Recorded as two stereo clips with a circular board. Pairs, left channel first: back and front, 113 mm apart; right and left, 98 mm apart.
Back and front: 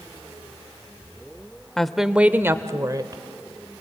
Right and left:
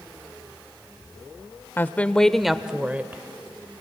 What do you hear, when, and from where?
1.8 s a woman speaking: 100° right, 0.8 m; by 3.8 s 35° left, 1.4 m